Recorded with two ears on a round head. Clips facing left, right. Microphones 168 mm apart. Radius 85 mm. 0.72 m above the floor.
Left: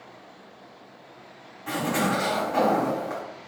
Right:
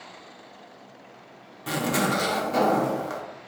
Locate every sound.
1.7 s a zipper: 50° right (ahead or behind), 0.7 m